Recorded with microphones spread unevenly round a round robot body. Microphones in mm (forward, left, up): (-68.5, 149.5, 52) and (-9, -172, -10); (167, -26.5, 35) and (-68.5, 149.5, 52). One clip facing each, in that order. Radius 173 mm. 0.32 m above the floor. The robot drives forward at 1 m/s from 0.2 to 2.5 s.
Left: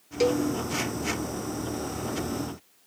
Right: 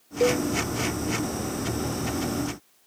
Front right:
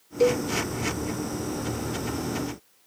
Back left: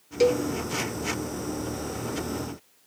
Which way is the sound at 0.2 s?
150° left.